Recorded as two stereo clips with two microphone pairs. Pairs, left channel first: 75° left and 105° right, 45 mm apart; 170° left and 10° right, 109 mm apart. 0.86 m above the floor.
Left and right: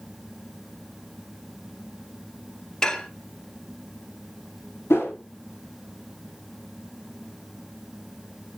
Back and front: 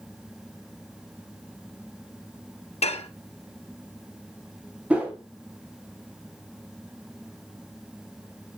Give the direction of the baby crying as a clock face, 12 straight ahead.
I don't hear a baby crying.